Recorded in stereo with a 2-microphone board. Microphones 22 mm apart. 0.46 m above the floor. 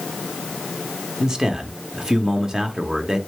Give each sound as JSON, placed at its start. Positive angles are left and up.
{"t": 1.2, "sound": "a man speaking", "side_deg": -35, "distance_m": 0.8}